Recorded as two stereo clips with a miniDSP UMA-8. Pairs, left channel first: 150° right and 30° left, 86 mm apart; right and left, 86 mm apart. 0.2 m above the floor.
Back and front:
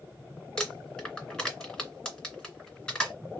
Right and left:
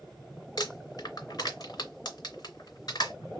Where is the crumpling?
75° right, 2.5 m.